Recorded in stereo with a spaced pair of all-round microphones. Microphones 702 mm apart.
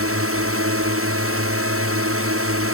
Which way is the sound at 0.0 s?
20° right (ahead or behind).